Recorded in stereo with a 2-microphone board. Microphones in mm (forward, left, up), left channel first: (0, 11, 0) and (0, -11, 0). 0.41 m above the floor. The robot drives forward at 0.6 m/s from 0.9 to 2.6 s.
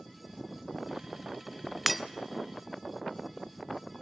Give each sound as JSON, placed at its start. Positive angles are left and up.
{"t": 1.9, "sound": "breaking glass", "side_deg": -5, "distance_m": 0.8}